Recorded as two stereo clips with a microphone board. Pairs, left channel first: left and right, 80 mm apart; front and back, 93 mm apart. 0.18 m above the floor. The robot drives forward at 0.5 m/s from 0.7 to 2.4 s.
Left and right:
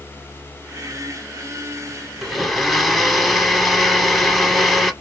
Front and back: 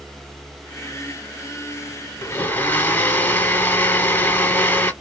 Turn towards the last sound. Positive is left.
turn(degrees=0)